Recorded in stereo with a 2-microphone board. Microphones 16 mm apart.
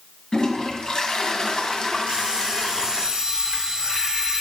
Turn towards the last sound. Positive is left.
turn(degrees=-55)  # may be behind; listen again after turning